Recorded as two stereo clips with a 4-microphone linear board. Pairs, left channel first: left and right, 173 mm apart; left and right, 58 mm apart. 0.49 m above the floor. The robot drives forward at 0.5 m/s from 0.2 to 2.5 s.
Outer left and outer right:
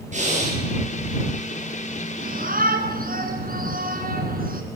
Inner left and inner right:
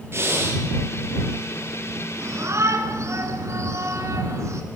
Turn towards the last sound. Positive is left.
turn(degrees=-55)  # may be behind; listen again after turning